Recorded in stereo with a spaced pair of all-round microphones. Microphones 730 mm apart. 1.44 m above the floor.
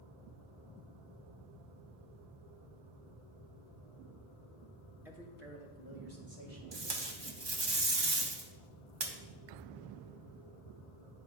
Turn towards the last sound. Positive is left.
turn(degrees=-35)  # may be behind; listen again after turning